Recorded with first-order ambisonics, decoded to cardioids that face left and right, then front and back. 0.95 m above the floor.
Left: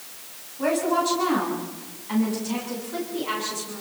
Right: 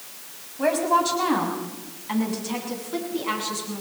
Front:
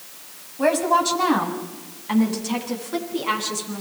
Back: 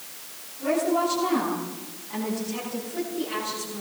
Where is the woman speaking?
20° right, 6.5 m; by 3.8 s 15° right, 9.5 m.